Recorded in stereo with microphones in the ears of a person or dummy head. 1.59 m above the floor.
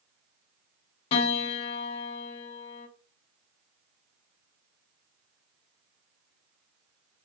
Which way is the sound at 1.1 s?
35° left (ahead or behind).